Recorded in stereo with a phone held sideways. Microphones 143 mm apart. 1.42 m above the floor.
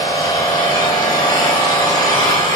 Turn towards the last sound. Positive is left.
turn(degrees=30)  # may be behind; listen again after turning